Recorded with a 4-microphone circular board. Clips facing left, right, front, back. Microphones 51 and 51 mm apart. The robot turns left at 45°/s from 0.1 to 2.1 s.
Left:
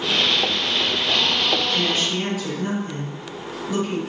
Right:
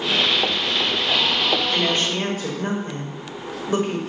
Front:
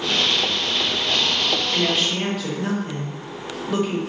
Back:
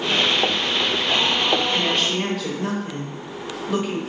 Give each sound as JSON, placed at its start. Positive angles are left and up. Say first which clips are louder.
{"t": 1.7, "sound": "a woman speaking", "louder": "right 1 dB, even", "azimuth_deg": -70, "distance_m": 0.7}